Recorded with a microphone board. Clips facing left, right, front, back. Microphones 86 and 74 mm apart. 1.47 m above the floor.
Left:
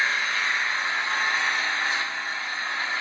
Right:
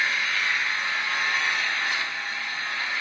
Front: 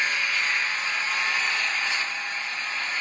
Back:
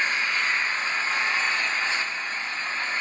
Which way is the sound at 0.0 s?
135° left.